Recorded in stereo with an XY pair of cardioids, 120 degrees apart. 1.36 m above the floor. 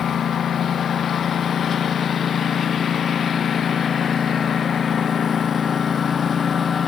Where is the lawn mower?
45° left; by 6.9 s 35° left.